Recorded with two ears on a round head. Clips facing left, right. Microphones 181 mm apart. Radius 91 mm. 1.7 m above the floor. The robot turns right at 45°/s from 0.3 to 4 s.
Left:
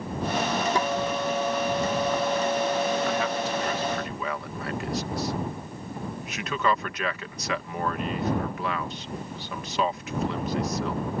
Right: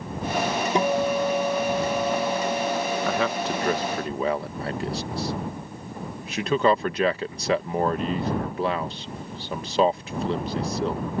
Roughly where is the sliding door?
No sliding door in this recording.